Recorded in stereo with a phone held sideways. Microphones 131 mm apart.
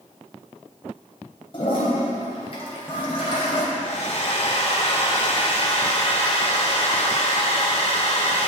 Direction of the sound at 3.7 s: 55° left (ahead or behind).